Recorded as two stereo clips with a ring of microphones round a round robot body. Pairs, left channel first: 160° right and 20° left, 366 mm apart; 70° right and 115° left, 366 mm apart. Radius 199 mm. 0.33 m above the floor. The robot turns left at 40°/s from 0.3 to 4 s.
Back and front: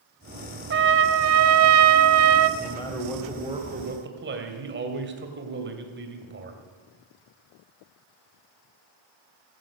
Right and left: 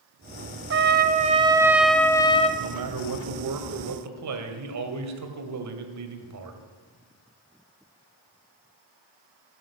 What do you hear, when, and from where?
0.7 s a trumpet: 70° left, 0.8 m; by 2.5 s straight ahead, 0.8 m
2.6 s a man speaking: 135° left, 2 m; by 6.6 s 80° left, 2 m